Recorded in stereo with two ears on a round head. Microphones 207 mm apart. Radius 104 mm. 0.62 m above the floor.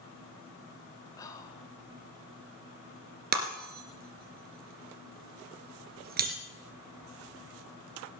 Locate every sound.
1.2 s whispering: 15° left (ahead or behind), 2.5 m
3.3 s breaking glass: 45° right (ahead or behind), 2.5 m